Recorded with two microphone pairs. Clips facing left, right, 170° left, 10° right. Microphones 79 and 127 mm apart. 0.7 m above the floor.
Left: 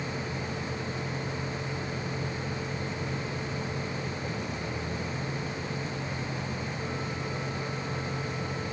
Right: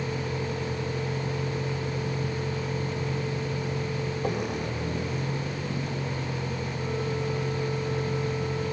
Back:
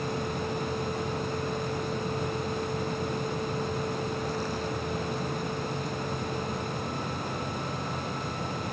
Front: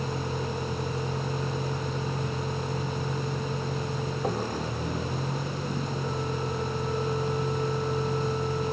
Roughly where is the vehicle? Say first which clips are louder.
Right 4 dB, even; ahead right.